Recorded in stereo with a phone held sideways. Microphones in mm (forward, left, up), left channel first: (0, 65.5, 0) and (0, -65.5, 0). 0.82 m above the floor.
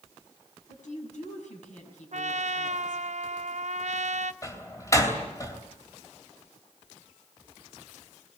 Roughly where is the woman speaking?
Left.